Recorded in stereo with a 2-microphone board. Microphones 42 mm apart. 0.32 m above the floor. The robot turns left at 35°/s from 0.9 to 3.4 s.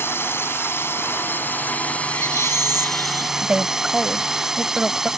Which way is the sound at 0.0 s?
75° left.